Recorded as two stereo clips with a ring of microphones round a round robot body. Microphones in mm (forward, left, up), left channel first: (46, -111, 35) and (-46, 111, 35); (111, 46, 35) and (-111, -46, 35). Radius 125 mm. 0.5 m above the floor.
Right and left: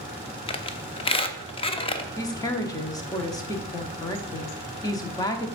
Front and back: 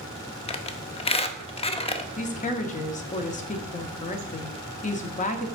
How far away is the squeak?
About 0.5 m.